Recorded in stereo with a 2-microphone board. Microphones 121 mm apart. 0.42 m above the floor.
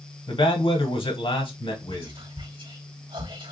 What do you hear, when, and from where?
0.3 s a man speaking: 45° left (ahead or behind), 1.2 m
1.9 s whispering: 45° right (ahead or behind), 1.1 m